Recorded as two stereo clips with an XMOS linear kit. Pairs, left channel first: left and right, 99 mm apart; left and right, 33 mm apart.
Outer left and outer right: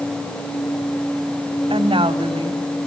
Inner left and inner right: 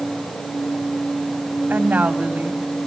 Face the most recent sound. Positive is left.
turn(degrees=-70)  # may be behind; listen again after turning